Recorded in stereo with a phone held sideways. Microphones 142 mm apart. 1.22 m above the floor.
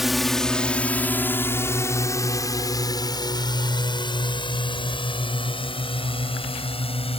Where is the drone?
Centre (ahead or behind); by 7.2 s 40° left (ahead or behind).